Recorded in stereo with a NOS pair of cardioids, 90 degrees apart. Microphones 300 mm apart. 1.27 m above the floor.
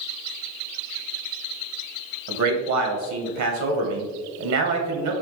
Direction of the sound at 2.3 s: 65° right.